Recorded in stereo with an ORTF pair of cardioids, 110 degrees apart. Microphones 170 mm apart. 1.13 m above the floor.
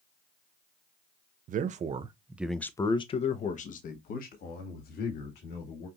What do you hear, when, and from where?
1.5 s a man speaking: 55° right, 0.9 m; by 5.9 s 70° left, 2.5 m